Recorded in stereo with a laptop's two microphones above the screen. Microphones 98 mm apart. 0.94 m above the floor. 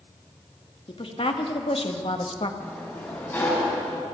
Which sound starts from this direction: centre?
A sliding door, at 2.6 s.